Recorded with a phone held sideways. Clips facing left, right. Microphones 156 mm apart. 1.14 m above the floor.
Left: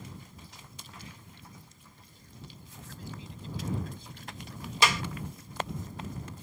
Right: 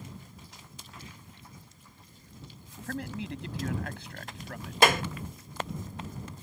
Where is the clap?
55° right (ahead or behind).